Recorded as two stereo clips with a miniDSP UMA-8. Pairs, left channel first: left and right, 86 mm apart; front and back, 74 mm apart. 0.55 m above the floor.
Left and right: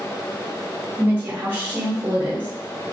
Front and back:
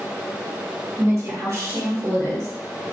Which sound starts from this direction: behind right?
A woman speaking, at 1.0 s.